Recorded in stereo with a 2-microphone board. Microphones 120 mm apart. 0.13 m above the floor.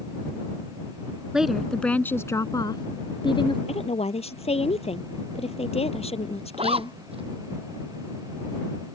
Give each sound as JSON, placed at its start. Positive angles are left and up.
{"t": 1.3, "sound": "a woman speaking", "side_deg": -5}
{"t": 3.7, "sound": "a woman speaking", "side_deg": 60}
{"t": 6.5, "sound": "a zipper", "side_deg": -55}